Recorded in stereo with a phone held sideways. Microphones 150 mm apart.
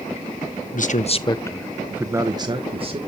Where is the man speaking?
65° left (ahead or behind), 0.9 m; by 3.0 s 40° right (ahead or behind), 1.5 m.